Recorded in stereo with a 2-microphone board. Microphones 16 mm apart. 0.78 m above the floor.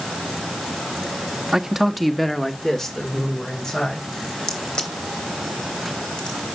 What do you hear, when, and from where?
1.5 s a man speaking: 35° right (ahead or behind), 0.9 m; by 4.1 s 35° left (ahead or behind), 3.5 m
4.5 s a crack: 60° left (ahead or behind), 2.5 m